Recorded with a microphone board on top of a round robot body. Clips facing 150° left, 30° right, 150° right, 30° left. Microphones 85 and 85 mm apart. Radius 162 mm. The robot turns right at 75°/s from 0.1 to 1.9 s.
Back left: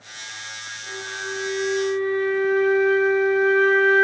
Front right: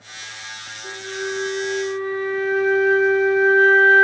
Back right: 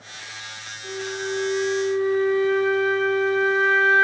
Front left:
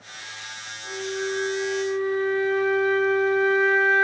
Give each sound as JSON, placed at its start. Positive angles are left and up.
{"t": 0.8, "sound": "a flute", "azimuth_deg": -170, "distance_m": 1.0}